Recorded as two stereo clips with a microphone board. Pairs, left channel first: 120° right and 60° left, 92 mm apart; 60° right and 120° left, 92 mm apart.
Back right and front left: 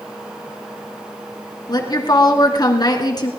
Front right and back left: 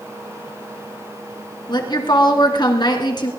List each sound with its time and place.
1.7 s a woman speaking: 85° right, 2.5 m